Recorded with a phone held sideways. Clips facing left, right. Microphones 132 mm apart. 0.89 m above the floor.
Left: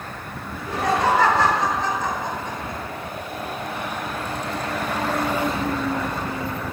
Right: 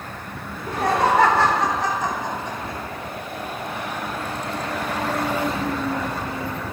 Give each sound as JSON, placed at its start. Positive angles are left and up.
{"t": 0.5, "sound": "laughter", "side_deg": -50, "distance_m": 3.5}